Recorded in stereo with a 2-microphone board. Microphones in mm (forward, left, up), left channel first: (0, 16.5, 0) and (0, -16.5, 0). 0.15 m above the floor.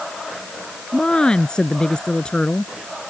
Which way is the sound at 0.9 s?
30° left (ahead or behind).